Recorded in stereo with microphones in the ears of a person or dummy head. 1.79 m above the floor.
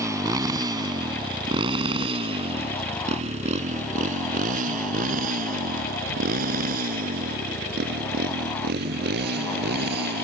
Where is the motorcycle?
15° right (ahead or behind); by 10.2 s 60° right (ahead or behind).